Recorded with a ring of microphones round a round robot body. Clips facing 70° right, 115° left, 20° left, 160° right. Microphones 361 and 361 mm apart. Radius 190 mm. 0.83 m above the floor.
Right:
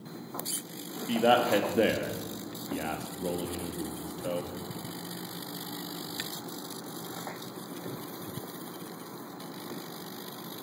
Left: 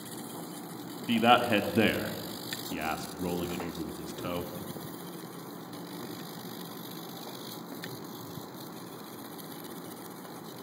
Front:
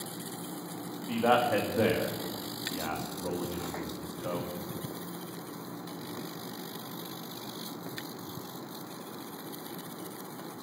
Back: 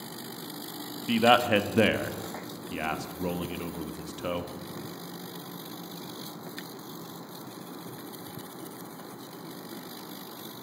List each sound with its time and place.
1.1 s a man speaking: 175° left, 1.5 m